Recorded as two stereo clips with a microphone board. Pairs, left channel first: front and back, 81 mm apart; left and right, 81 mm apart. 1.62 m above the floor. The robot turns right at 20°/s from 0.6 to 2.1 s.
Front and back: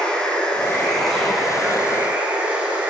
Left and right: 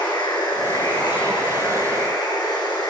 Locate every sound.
0.0 s running water: 75° left, 9.5 m; by 2.9 s 105° left, 9.5 m